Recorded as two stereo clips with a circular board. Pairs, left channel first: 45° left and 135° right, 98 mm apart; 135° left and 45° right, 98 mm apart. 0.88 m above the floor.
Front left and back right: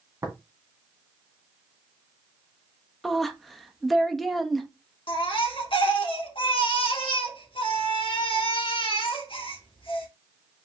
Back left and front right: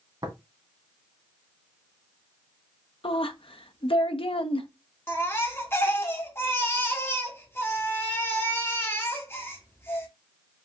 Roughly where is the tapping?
Right.